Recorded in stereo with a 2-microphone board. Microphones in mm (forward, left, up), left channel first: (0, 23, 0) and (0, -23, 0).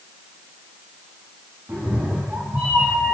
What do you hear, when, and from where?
1.7 s a cat meowing: 45° right (ahead or behind), 6.5 m; by 3.1 s 35° right (ahead or behind), 5.5 m